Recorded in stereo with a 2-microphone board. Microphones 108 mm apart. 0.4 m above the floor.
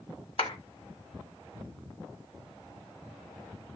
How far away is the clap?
About 1.7 m.